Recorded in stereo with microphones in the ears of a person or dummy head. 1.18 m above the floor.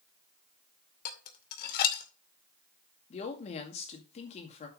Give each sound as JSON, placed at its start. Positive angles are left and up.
{"t": 1.1, "sound": "dishes clattering", "side_deg": 60, "distance_m": 2.0}
{"t": 3.1, "sound": "a woman speaking", "side_deg": 45, "distance_m": 1.9}